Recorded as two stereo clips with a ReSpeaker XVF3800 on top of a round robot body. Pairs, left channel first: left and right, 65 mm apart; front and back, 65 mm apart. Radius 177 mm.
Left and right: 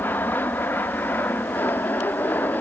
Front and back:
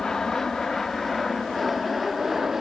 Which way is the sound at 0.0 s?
75° left.